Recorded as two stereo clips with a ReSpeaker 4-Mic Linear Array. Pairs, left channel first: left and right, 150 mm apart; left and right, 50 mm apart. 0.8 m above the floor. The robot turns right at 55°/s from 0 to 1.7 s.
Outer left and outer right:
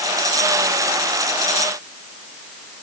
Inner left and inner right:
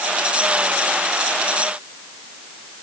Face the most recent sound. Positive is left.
No sound to turn to.